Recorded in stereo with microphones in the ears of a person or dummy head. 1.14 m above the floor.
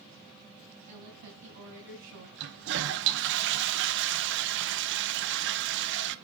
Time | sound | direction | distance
0.9 | a woman speaking | 60° right (ahead or behind) | 7.5 m
2.4 | a toilet flushing | 65° right (ahead or behind) | 0.9 m